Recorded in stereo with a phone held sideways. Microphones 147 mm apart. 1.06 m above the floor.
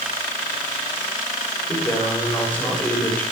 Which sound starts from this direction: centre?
A man speaking, at 1.7 s.